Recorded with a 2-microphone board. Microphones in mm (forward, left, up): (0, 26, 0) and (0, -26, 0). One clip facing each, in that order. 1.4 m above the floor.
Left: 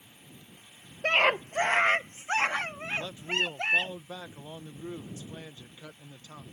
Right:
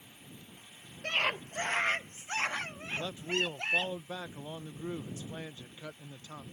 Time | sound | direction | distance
1.0 | a scream | 60° left (ahead or behind) | ?
2.9 | a man speaking | 25° right (ahead or behind) | ?